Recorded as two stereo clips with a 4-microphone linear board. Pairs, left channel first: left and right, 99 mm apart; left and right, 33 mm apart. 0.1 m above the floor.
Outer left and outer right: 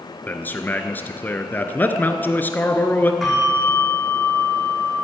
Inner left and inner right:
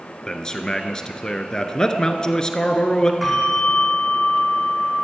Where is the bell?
Centre (ahead or behind), 7 m.